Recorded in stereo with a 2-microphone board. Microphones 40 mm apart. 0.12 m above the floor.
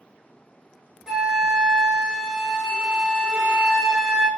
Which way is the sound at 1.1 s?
15° right (ahead or behind).